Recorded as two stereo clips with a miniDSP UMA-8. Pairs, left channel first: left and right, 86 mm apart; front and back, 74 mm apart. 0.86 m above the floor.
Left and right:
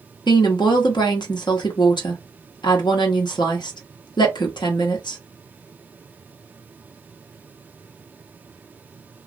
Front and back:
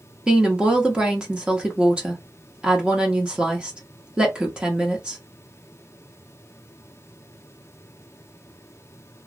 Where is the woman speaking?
105° left, 0.9 m.